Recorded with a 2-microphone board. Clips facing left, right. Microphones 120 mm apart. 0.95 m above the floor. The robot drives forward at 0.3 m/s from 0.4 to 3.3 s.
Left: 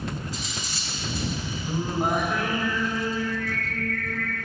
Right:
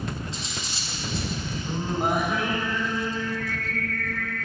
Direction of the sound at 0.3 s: 25° right (ahead or behind).